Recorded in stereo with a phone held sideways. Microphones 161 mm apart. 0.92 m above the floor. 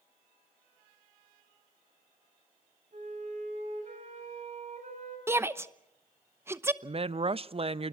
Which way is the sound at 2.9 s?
55° right (ahead or behind).